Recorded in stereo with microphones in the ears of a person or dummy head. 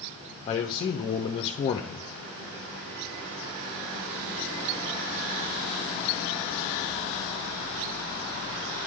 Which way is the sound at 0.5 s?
35° left (ahead or behind).